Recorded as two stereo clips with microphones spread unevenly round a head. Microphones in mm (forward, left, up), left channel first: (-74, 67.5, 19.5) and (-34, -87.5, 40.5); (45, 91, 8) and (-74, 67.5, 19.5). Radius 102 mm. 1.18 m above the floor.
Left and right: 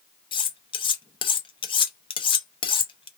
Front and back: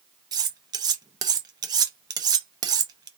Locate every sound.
0.3 s cutlery clinking: 160° left, 0.6 m